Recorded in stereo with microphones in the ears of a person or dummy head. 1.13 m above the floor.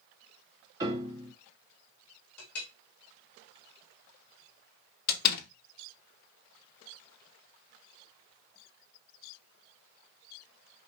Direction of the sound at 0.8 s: 20° right (ahead or behind).